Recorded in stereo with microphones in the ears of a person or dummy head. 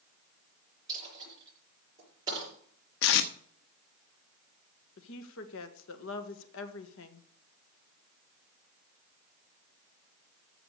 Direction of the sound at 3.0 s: 55° left (ahead or behind).